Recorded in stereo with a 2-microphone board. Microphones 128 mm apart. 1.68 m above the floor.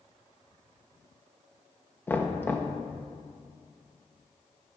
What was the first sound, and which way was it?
Knocking, 15° left (ahead or behind).